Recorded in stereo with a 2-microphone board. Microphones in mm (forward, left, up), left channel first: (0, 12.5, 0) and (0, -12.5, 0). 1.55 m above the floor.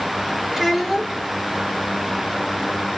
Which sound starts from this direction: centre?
A child speaking, at 0.5 s.